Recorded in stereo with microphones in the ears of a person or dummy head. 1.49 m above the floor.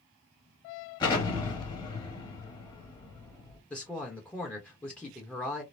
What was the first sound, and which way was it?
An explosion, 20° left (ahead or behind).